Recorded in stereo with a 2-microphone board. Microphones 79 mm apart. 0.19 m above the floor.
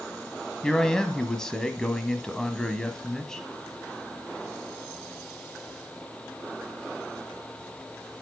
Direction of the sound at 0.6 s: 10° left (ahead or behind).